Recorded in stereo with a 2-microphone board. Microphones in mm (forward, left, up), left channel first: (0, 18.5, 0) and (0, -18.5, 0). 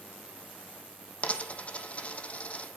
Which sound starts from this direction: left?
A dropped coin, at 1.2 s.